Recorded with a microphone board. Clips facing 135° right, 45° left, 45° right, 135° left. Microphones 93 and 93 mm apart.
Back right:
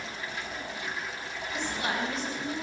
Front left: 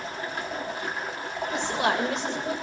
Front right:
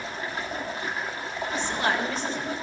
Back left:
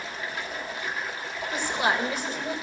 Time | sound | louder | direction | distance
0.0 | running water | front left 5 dB, front right 2 dB | 5° left | 2.5 m
1.5 | a woman speaking | front left 6 dB, back left 1 dB | 55° left | 2 m